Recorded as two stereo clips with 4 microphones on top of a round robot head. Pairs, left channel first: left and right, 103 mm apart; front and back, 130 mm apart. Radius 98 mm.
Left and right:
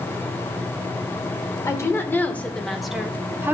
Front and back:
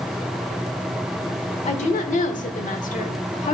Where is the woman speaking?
30° left, 1.7 m; by 3.5 s 25° right, 1.4 m.